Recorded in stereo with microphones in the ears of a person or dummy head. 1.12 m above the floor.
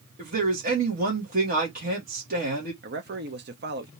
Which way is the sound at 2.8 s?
50° right (ahead or behind).